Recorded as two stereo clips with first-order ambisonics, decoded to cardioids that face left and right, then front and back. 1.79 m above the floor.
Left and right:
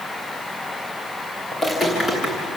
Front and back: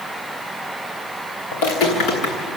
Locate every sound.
1.5 s footsteps: 10° left, 7 m; by 2.6 s 15° left, 6 m